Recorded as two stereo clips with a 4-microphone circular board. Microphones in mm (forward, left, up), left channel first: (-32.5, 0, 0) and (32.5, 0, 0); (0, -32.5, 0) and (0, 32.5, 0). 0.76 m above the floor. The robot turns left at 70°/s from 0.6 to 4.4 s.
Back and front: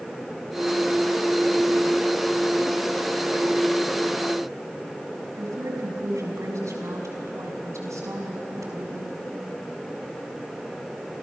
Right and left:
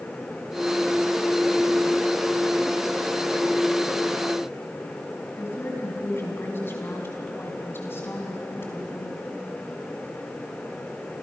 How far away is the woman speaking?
About 5.5 m.